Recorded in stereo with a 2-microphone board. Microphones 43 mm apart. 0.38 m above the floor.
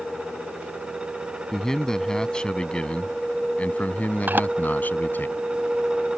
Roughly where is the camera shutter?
Right.